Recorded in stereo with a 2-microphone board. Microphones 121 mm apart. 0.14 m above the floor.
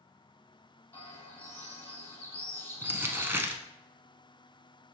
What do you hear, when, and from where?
0.9 s a bird: 20° left (ahead or behind), 2 m
2.8 s crumpling: 20° right (ahead or behind), 0.8 m